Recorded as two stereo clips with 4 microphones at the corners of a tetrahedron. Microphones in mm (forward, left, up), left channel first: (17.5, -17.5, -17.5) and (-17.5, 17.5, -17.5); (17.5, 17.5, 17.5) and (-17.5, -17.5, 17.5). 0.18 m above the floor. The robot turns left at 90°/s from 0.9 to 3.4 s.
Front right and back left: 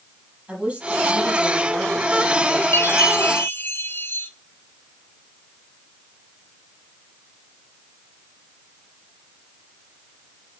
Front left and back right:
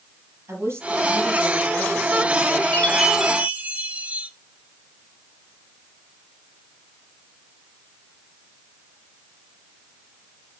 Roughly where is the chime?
Ahead.